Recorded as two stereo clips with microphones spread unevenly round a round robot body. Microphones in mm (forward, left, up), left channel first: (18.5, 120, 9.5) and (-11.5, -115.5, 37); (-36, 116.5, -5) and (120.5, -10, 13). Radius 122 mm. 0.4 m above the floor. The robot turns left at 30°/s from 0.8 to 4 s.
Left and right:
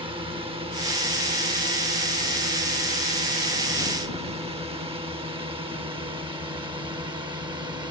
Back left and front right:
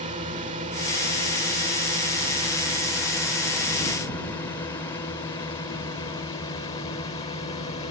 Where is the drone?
40° right; by 7.9 s 165° right.